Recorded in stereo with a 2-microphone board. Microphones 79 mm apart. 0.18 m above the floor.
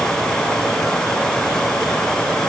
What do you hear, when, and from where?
Only background noise.